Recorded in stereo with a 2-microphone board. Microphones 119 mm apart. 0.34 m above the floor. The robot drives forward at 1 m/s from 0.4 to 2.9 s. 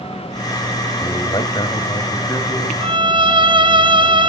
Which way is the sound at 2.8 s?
50° right (ahead or behind).